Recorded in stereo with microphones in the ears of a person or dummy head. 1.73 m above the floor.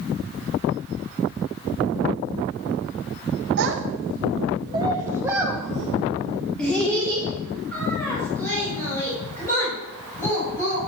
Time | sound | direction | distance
3.6 | a child speaking | 65° right (ahead or behind) | 1.5 m